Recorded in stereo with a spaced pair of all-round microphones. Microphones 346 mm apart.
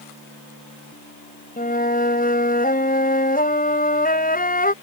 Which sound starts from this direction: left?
A flute, at 1.6 s.